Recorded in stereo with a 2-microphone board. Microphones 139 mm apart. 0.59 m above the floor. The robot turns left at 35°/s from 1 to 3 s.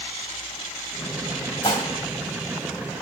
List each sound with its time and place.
1.6 s dishes clattering: 35° left (ahead or behind), 1.9 m; by 1.9 s 30° left (ahead or behind), 1.9 m